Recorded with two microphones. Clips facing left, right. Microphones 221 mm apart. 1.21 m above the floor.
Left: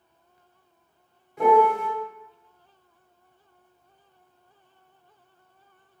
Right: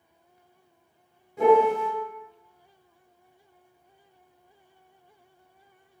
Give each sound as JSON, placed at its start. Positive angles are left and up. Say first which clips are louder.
{"t": 1.4, "sound": "a piano", "louder": "right 1 dB", "side_deg": -35, "distance_m": 1.5}